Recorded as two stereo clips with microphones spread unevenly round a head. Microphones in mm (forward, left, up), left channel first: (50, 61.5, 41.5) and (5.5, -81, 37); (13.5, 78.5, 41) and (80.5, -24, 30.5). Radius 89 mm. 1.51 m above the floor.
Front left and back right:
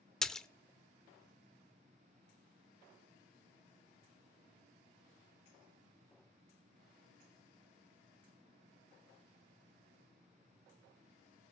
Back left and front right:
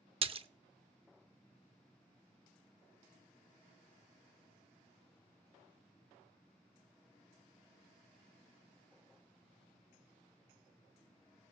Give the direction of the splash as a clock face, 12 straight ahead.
12 o'clock.